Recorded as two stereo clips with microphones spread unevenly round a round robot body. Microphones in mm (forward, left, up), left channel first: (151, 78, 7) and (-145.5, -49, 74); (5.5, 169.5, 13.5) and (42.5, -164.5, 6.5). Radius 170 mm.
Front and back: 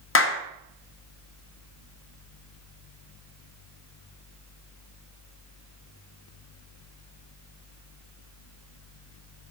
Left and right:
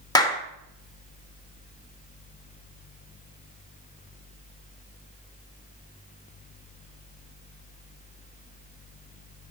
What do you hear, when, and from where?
0.1 s a clap: 20° left, 0.9 m